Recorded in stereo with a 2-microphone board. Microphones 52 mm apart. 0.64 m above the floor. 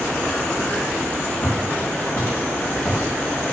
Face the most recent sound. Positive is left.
turn(degrees=-5)  # may be behind; listen again after turning